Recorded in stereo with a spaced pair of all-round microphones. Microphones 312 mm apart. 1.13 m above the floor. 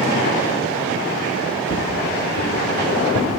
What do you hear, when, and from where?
1.7 s footsteps: 60° left (ahead or behind), 7 m; by 3.4 s 55° left (ahead or behind), 8.5 m